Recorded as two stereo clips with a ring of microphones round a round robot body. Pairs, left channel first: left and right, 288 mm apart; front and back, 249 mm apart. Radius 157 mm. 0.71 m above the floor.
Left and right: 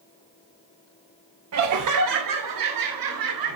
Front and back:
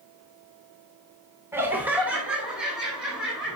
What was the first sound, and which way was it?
Laughter, 100° right.